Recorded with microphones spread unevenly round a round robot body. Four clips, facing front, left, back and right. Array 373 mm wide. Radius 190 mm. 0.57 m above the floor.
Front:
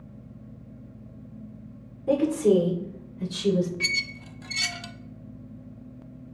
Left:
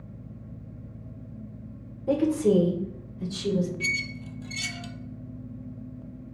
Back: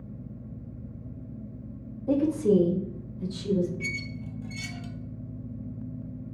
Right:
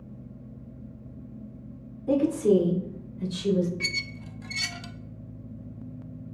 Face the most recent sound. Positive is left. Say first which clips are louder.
# left 3 dB, front 2 dB
turn(degrees=0)